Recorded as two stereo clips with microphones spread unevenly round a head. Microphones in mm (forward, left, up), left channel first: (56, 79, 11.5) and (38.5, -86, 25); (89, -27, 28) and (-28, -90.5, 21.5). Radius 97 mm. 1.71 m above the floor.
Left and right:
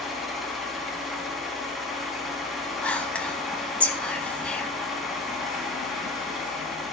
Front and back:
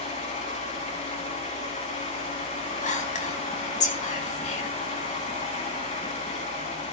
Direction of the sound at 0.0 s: 5° right.